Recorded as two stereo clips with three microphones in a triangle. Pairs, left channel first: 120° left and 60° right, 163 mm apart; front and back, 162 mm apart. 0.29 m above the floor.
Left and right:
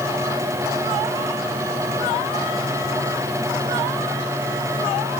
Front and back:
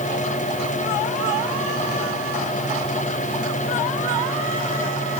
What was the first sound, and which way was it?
Only background noise.